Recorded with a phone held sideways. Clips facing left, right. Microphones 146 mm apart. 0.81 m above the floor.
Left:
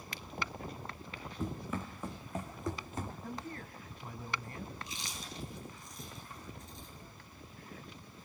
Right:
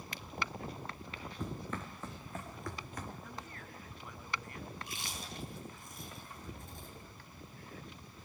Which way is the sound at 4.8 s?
55° right (ahead or behind).